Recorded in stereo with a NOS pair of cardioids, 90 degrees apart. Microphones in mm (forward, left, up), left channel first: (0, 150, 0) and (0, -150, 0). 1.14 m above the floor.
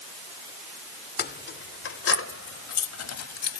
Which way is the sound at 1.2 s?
35° left.